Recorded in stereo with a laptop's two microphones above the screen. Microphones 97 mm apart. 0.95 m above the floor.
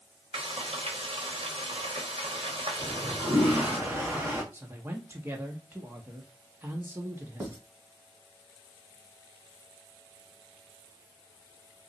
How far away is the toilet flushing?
About 1.5 m.